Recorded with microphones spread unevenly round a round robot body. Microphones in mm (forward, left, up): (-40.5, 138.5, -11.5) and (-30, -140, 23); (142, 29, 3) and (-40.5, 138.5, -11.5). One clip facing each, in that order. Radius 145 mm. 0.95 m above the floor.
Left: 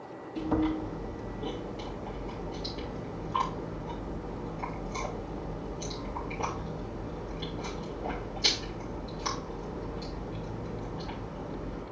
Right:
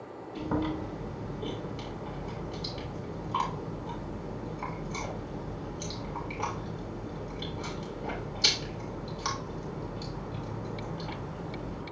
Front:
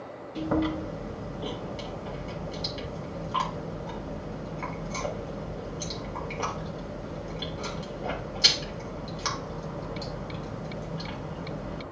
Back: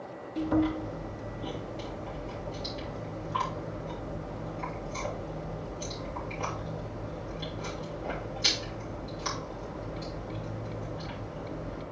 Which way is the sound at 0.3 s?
25° right.